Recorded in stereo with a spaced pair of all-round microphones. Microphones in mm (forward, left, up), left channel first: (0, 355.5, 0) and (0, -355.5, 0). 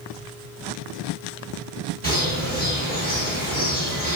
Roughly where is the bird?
Centre.